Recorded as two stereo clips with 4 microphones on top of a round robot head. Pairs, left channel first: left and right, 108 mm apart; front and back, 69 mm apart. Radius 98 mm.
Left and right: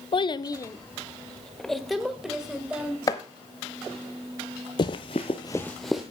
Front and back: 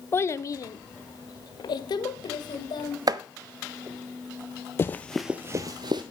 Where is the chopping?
155° left, 0.5 m.